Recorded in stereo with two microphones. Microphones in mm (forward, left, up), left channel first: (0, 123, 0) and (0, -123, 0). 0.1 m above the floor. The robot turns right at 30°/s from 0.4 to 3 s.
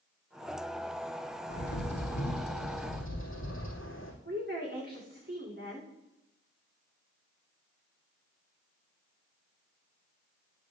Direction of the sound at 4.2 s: 40° right (ahead or behind).